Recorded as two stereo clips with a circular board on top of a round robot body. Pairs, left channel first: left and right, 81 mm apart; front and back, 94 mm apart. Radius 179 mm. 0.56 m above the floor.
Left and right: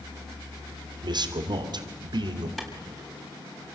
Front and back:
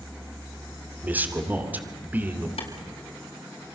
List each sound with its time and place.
1.0 s a man speaking: 110° right, 2.5 m
2.6 s a clap: 5° left, 5 m